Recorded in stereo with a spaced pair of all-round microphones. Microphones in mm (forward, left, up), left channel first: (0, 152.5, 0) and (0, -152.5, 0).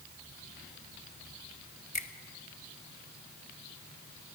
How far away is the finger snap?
About 1.5 m.